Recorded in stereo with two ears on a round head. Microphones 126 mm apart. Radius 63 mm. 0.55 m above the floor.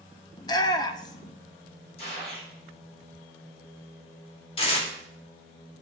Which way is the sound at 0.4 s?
30° left (ahead or behind).